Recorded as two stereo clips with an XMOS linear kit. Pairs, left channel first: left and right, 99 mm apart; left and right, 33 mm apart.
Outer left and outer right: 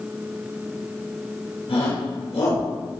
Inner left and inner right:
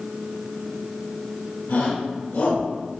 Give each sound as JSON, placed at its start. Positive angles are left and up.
{"t": 1.7, "sound": "a shout", "side_deg": 85, "distance_m": 5.5}